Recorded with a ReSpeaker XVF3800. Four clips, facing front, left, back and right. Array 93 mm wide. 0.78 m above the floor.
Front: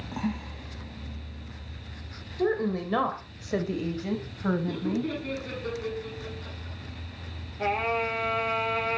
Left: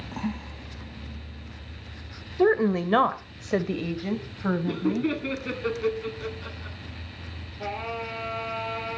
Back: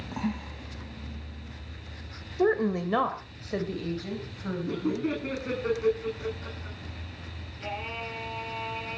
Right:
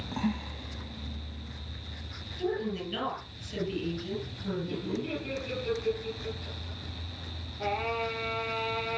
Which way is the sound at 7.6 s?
Straight ahead.